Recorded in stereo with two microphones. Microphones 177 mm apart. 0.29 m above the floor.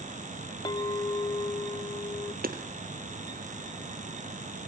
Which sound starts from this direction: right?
Hammering, at 2.4 s.